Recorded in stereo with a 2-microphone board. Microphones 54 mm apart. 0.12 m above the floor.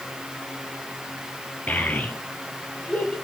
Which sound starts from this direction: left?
A child speaking, at 1.7 s.